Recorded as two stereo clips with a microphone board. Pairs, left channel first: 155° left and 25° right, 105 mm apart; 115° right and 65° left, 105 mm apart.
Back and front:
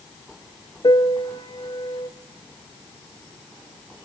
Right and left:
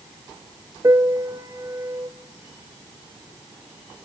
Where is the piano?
120° left, 0.9 m.